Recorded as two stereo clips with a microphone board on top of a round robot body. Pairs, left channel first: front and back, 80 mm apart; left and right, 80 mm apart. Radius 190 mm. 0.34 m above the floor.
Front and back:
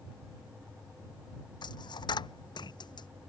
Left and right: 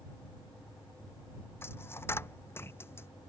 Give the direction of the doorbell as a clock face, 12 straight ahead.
I don't hear a doorbell.